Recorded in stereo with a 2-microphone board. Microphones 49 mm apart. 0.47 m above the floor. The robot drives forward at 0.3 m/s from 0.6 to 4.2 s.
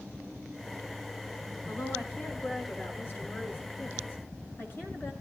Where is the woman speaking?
40° left (ahead or behind), 5.5 m; by 5.1 s 35° left (ahead or behind), 6 m.